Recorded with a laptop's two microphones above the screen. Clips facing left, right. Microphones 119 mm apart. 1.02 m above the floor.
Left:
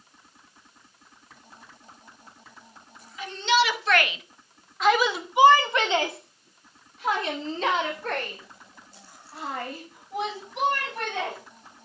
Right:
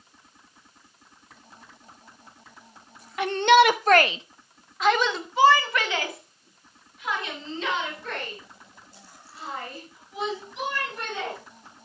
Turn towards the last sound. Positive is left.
turn(degrees=50)  # may be behind; listen again after turning